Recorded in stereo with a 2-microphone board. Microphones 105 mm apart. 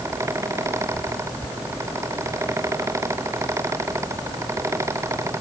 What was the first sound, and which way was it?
Only background noise.